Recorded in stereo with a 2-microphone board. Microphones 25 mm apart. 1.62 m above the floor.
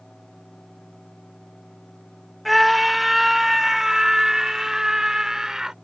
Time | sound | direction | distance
2.5 | a scream | 5° left (ahead or behind) | ?